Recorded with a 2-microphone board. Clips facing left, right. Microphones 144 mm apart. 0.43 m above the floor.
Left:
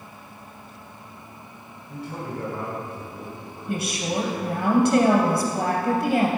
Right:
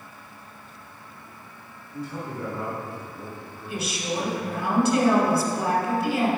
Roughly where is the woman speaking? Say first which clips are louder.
Left 3 dB; left.